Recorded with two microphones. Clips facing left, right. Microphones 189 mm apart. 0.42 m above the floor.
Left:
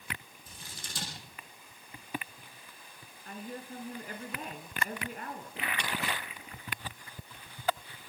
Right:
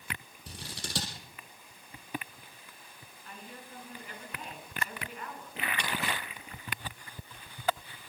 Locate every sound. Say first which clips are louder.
0.5 s scissors: right 7 dB; 85° right, 7 m
3.2 s a woman speaking: left 7 dB; 50° left (ahead or behind), 4 m